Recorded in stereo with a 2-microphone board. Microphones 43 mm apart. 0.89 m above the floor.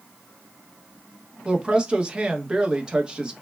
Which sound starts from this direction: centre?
A woman speaking, at 1.4 s.